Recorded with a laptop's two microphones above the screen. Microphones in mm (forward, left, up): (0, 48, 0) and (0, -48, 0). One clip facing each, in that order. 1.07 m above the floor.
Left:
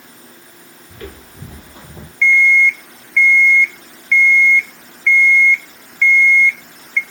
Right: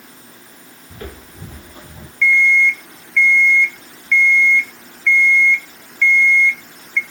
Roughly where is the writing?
I don't hear writing.